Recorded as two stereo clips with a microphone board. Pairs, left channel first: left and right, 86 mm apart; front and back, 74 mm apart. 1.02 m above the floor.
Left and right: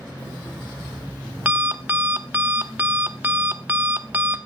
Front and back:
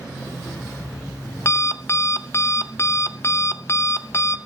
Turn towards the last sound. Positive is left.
turn(degrees=-30)